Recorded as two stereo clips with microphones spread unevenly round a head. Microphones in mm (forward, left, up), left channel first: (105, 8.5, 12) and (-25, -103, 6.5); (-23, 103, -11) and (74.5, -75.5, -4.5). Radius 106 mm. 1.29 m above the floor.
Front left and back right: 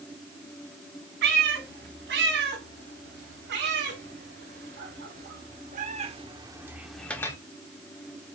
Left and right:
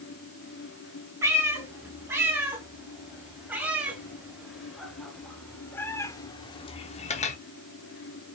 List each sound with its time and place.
1.2 s a cat meowing: 140° right, 4 m; by 7.4 s 95° left, 1.0 m